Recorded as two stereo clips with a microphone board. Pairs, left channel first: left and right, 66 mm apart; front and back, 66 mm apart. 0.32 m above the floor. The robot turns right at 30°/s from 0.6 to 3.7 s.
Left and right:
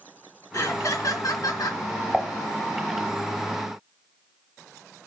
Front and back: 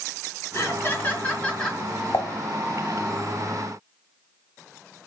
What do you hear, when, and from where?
0.5 s laughter: 50° left, 4.5 m; by 1.8 s 85° left, 4.5 m
2.1 s dishes clattering: 10° left, 1.3 m; by 2.3 s 15° left, 1.3 m